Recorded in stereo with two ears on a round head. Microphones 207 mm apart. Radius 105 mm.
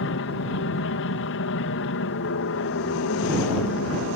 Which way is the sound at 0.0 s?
60° left (ahead or behind).